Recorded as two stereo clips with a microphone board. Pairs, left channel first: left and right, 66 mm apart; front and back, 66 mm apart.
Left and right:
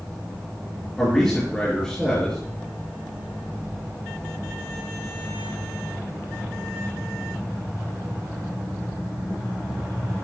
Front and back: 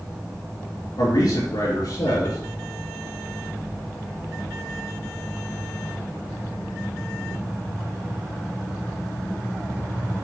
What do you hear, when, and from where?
1.0 s a man speaking: 10° left, 4.5 m